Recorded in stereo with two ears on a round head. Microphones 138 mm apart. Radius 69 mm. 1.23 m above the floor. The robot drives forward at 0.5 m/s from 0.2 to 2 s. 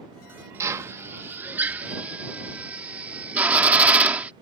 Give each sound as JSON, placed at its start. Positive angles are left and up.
{"t": 0.6, "sound": "a drill", "side_deg": -20}